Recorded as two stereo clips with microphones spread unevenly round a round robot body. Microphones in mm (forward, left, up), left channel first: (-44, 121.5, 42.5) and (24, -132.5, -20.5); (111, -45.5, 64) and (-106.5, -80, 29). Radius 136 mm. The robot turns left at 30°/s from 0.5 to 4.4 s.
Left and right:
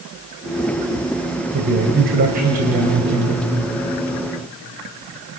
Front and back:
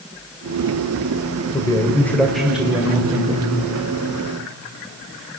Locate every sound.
1.5 s a man speaking: 65° right, 2 m; by 3.5 s 125° right, 2 m